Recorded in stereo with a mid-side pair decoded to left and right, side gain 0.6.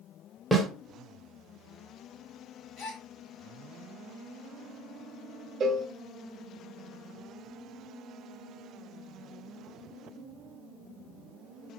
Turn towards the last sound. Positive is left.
turn(degrees=-40)